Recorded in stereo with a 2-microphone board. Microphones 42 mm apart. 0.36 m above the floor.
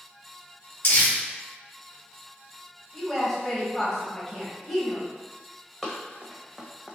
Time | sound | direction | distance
0.8 | crumpling | 55° left (ahead or behind) | 1.6 m
2.9 | a woman speaking | 5° left (ahead or behind) | 1.8 m
5.8 | running footsteps | 5° right (ahead or behind) | 1.5 m